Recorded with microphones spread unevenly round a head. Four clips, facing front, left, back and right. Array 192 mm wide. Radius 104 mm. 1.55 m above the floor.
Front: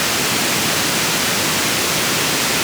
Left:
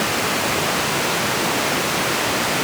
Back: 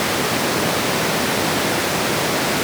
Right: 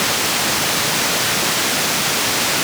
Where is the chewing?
I don't hear chewing.